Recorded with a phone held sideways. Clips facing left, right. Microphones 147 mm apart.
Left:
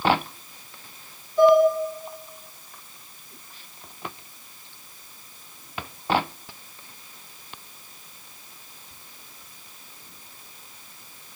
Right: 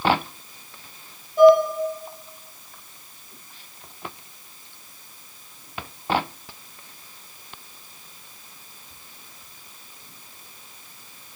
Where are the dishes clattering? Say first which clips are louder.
Right 3 dB; 50° right (ahead or behind), 1.5 m.